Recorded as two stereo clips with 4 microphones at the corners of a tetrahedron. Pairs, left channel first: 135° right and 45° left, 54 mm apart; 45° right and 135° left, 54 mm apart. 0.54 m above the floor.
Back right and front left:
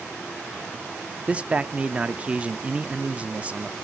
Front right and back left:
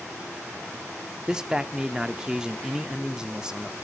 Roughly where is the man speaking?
Left.